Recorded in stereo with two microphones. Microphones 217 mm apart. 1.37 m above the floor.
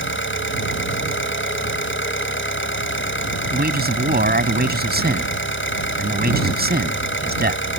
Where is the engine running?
65° left (ahead or behind).